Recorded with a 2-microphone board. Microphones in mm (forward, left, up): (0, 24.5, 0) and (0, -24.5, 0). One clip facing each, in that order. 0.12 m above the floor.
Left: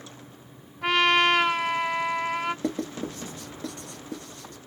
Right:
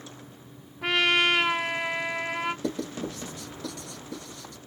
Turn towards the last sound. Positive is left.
turn(degrees=35)  # may be behind; listen again after turning